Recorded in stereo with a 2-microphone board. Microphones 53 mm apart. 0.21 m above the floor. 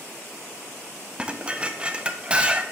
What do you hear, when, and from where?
1.2 s dishes clattering: 20° right (ahead or behind), 0.8 m